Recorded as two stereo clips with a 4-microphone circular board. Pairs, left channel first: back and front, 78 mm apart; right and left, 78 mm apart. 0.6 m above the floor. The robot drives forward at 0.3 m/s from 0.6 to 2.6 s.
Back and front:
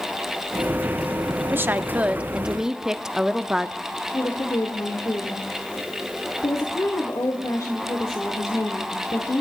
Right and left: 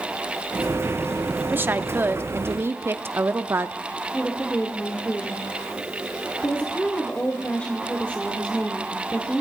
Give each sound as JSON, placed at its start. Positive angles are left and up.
{"t": 1.5, "sound": "a woman speaking", "azimuth_deg": 40, "distance_m": 0.8}
{"t": 4.1, "sound": "a woman speaking", "azimuth_deg": -160, "distance_m": 1.9}